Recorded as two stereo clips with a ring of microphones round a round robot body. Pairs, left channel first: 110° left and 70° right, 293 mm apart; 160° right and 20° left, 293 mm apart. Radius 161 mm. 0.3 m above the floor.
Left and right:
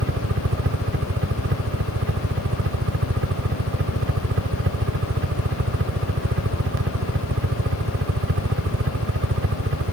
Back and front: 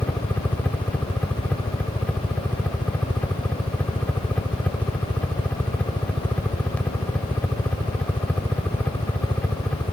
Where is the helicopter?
75° right.